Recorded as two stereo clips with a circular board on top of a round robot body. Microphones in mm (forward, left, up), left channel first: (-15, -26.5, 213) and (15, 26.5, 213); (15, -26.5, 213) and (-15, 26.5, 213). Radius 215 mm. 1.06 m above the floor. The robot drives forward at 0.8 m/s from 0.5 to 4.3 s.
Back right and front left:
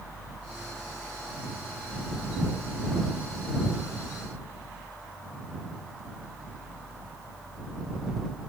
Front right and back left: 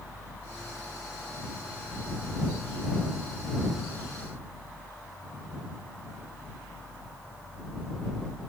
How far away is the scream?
No scream in this recording.